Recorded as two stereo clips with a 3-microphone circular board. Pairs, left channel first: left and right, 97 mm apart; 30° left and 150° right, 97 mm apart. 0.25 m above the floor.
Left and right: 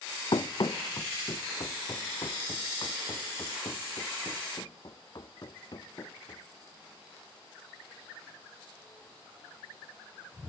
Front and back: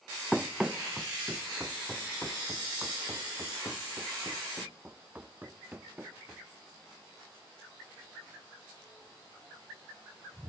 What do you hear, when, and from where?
0.3 s running footsteps: 120° left; by 6.5 s 140° left